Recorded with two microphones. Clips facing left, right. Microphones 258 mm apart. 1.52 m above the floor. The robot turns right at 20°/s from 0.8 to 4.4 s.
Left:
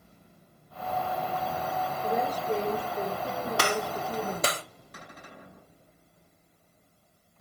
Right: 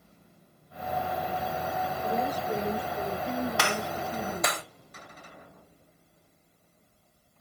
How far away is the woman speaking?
About 4.5 m.